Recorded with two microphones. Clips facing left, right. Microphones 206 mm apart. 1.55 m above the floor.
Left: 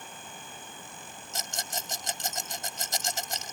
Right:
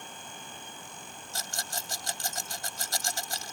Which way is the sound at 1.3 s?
20° left (ahead or behind).